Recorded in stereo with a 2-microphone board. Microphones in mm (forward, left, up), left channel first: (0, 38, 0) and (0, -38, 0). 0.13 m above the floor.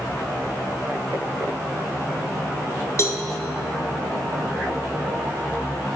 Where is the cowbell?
40° left (ahead or behind), 0.5 m.